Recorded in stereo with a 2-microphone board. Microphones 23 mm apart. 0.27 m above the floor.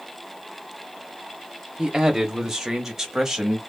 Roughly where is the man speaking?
Centre.